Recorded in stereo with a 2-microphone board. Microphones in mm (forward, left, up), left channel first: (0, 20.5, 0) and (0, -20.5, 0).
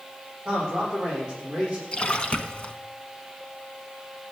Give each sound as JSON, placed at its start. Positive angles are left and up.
{"t": 0.5, "sound": "a man speaking", "side_deg": -20, "distance_m": 9.0}
{"t": 1.9, "sound": "a splash", "side_deg": 30, "distance_m": 1.1}